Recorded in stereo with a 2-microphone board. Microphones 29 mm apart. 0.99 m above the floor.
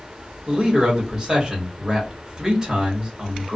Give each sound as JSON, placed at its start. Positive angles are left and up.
{"t": 0.5, "sound": "a man speaking", "side_deg": -25, "distance_m": 1.4}